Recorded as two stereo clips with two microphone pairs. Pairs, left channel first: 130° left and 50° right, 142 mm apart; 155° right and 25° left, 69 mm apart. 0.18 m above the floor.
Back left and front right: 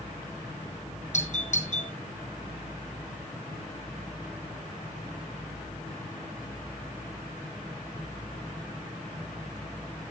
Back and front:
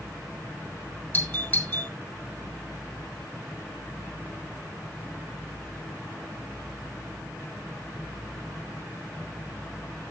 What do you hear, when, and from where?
1.1 s a doorbell: 155° left, 4.5 m